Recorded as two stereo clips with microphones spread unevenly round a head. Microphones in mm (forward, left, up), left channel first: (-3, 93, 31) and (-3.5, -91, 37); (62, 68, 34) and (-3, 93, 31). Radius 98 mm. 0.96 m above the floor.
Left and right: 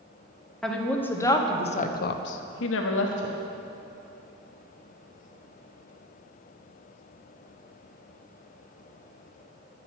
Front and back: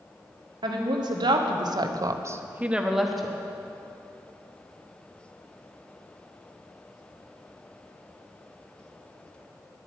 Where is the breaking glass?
I don't hear breaking glass.